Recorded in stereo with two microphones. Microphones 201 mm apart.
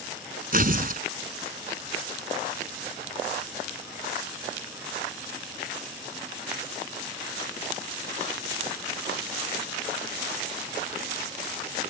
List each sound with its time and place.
0.5 s tearing paper: 45° right (ahead or behind)